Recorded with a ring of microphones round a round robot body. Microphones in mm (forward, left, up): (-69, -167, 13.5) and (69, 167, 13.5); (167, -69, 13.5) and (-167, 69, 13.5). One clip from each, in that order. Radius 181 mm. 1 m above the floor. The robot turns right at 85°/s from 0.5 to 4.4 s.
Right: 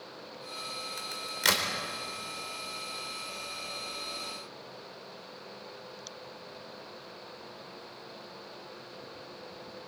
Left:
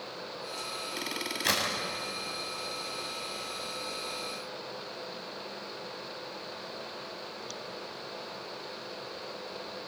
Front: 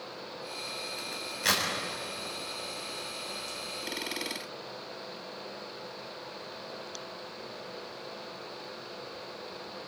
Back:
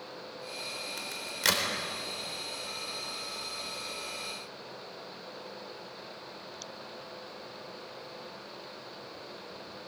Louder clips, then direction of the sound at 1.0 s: Right 2 dB, back 4 dB; straight behind.